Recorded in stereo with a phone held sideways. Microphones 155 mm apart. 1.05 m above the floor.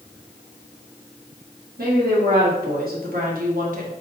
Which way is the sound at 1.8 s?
80° right.